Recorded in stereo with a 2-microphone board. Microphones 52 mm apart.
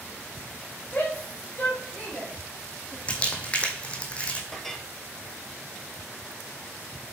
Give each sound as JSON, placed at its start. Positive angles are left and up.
{"t": 0.9, "sound": "a shout", "side_deg": 35, "distance_m": 4.5}
{"t": 3.1, "sound": "crumpling", "side_deg": 25, "distance_m": 1.8}
{"t": 4.5, "sound": "a clink", "side_deg": 10, "distance_m": 1.2}